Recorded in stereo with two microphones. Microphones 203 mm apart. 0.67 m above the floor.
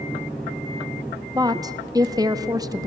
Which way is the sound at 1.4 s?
20° right (ahead or behind).